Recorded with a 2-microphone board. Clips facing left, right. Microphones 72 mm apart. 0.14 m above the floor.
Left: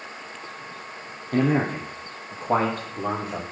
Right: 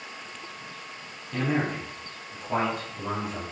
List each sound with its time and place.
1.3 s a man speaking: 50° left (ahead or behind), 3 m; by 3.4 s 65° left (ahead or behind), 4 m